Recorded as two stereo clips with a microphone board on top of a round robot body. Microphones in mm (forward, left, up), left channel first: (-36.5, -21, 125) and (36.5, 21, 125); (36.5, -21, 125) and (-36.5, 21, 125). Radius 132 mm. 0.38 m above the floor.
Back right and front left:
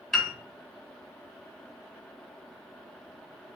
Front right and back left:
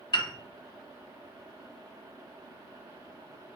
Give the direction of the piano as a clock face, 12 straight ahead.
2 o'clock.